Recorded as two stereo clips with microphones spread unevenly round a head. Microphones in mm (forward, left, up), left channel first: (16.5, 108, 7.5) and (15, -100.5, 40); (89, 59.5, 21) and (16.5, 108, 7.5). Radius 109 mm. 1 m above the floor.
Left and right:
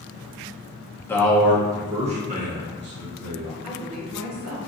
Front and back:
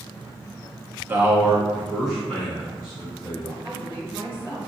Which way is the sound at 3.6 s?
110° right.